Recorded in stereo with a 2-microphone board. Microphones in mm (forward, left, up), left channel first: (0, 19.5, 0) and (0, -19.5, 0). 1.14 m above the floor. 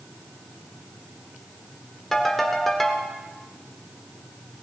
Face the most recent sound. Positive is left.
turn(degrees=0)  # may be behind; listen again after turning